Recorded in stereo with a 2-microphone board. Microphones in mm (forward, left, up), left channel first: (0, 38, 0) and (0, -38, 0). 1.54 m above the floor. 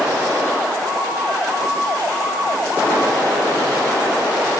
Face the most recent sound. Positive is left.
No sound to turn to.